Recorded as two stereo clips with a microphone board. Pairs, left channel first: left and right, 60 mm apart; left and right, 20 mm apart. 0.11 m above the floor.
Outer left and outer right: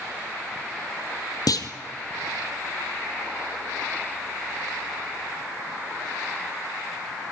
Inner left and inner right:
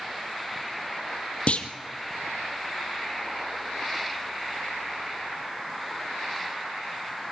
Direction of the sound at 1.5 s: 70° left (ahead or behind).